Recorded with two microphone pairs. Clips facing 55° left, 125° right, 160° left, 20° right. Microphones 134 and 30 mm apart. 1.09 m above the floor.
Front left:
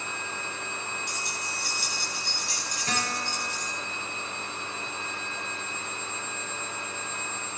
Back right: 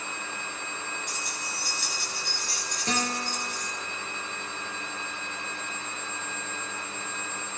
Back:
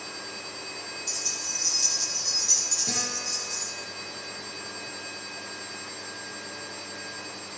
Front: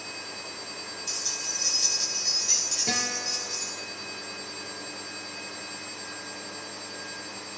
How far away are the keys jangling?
About 9 m.